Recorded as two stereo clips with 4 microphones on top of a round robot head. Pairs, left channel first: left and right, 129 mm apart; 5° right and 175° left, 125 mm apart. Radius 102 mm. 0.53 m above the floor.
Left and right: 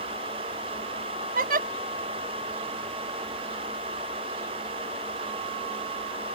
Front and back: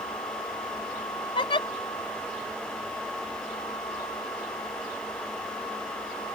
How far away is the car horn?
I don't hear a car horn.